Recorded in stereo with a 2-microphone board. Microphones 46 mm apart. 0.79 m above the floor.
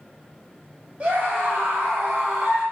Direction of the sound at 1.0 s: 25° right (ahead or behind).